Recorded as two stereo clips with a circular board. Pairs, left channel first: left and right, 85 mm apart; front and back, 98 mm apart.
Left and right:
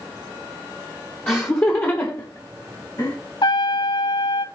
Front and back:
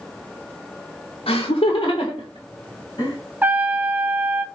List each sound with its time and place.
1.3 s laughter: 20° left, 1.0 m; by 3.2 s 45° left, 2.5 m
3.4 s a trumpet: 110° left, 0.5 m